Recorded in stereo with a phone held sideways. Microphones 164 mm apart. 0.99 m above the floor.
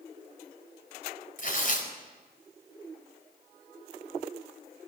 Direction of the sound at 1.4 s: 55° left (ahead or behind).